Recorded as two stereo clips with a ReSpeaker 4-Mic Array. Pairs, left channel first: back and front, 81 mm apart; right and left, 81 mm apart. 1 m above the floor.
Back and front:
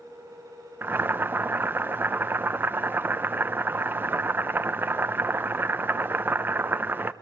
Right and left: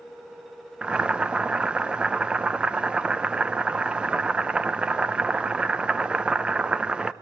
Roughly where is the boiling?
Ahead left.